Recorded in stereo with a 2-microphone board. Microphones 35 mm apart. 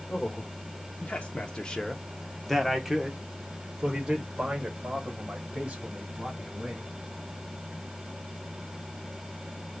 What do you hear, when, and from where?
0.1 s a man speaking: 50° left (ahead or behind), 1.2 m; by 6.9 s 35° right (ahead or behind), 3 m